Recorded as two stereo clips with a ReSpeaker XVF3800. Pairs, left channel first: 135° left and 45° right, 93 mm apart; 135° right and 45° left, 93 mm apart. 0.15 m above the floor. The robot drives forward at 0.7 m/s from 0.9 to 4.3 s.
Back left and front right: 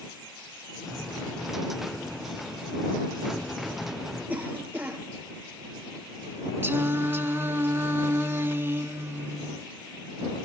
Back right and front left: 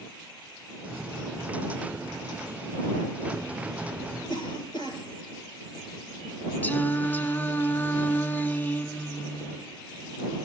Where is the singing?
85° right, 0.5 m.